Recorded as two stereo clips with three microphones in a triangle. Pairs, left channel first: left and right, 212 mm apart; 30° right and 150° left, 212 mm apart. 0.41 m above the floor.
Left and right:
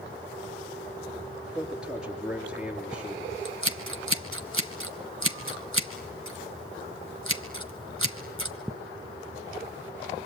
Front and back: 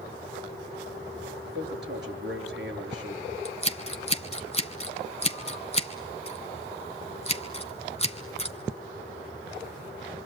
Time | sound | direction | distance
1.4 | a man speaking | 175° right | 7 m
3.5 | scissors | 90° right | 2 m